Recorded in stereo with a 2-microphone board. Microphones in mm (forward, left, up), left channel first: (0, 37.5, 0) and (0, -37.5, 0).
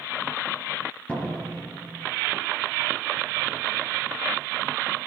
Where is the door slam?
20° left (ahead or behind), 4 m.